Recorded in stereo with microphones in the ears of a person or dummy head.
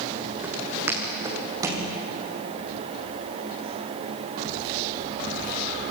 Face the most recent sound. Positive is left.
turn(degrees=-20)  # may be behind; listen again after turning